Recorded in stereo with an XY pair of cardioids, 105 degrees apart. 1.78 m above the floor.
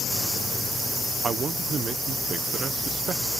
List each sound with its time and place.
1.2 s a man speaking: 45° right